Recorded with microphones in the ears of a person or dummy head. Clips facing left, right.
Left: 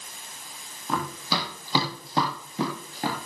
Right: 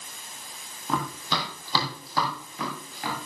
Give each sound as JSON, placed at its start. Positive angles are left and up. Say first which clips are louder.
{"t": 0.9, "sound": "running footsteps", "louder": "even", "side_deg": 0, "distance_m": 2.5}